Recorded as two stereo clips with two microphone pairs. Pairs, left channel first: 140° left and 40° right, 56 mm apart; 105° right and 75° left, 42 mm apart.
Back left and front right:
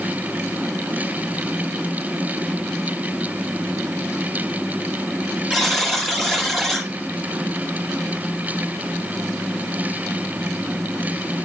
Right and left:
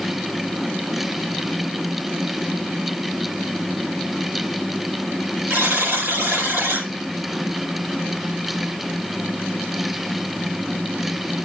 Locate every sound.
5.5 s a buzzer: 55° left, 3.5 m